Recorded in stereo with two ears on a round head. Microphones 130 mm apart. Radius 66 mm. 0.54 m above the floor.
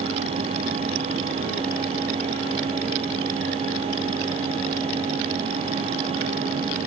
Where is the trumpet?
No trumpet in this recording.